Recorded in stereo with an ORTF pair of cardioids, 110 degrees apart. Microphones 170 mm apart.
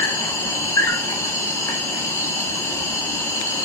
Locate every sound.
0.0 s an insect: 15° left, 1.1 m